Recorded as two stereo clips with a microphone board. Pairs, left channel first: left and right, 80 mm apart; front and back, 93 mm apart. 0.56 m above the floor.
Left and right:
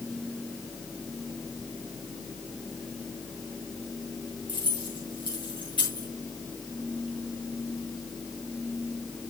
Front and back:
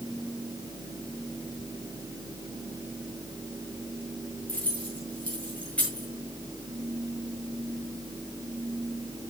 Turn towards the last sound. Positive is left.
turn(degrees=75)